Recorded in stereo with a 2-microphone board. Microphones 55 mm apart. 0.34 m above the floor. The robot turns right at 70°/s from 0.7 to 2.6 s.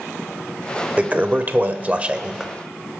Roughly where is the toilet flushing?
Behind right.